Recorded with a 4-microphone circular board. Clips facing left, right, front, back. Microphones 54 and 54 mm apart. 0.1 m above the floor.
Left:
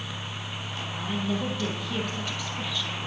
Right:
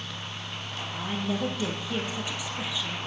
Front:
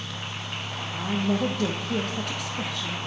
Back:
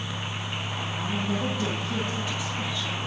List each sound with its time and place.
0.9 s a woman speaking: 15° right, 3 m